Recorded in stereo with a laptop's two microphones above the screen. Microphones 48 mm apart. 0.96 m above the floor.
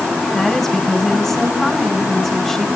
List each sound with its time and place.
0.3 s a woman speaking: 10° left (ahead or behind), 7.5 m